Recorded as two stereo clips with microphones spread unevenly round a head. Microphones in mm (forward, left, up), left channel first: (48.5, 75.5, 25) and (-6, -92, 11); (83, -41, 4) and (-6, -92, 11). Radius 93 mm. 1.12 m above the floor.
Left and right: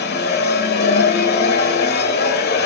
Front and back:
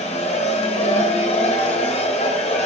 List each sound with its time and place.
0.0 s a machine running: 55° left, 1.4 m